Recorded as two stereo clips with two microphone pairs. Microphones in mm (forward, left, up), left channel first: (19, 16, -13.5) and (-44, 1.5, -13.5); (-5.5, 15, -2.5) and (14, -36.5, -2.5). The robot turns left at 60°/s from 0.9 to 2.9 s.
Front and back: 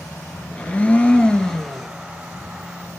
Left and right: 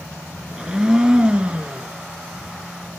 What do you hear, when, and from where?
0.5 s a blender: 15° right, 1.0 m; by 1.9 s 75° right, 1.0 m